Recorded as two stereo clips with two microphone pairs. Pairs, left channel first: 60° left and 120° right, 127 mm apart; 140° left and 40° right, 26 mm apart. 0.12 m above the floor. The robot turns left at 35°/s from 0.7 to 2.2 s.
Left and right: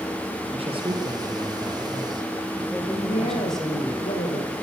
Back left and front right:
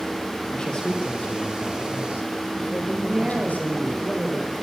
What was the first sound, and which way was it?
A man speaking, 165° right.